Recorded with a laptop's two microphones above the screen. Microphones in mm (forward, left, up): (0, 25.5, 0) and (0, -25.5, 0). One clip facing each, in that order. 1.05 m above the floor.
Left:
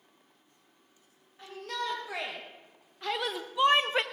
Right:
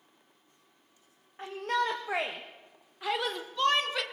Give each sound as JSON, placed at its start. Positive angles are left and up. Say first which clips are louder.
{"t": 1.4, "sound": "a shout", "louder": "right 6 dB", "side_deg": -45, "distance_m": 1.8}